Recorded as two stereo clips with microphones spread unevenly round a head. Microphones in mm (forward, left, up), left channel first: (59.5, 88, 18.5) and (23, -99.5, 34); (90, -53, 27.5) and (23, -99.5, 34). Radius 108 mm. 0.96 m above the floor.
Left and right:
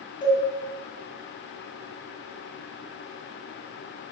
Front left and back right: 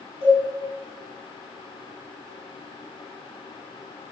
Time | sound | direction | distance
0.2 | a cowbell | 150° left | 6.5 m